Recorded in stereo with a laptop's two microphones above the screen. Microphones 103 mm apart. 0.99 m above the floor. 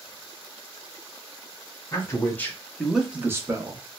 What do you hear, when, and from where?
1.9 s a man speaking: 30° left (ahead or behind), 1.7 m; by 3.8 s 45° right (ahead or behind), 1.4 m